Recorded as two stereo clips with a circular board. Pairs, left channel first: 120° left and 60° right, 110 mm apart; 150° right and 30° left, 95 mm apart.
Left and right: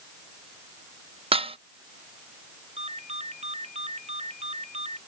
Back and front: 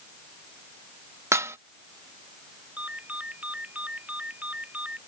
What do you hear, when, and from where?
1.3 s dishes clattering: 30° right
2.8 s a ringtone: 45° right